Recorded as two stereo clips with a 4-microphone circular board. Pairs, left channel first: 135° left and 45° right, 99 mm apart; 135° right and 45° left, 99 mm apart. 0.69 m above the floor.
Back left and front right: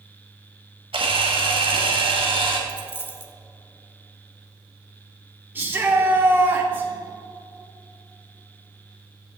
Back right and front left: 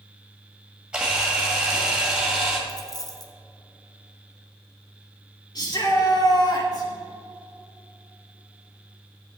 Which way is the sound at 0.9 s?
35° right.